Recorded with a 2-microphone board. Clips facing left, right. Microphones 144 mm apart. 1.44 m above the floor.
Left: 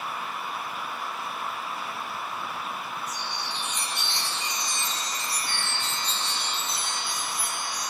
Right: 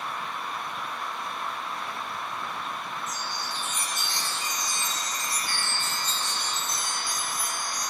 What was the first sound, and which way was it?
A chime, 45° right (ahead or behind).